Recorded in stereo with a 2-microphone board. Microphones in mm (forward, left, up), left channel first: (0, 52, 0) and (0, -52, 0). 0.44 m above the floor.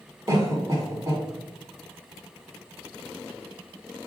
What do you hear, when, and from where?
0.3 s a cough: 30° right (ahead or behind), 1.5 m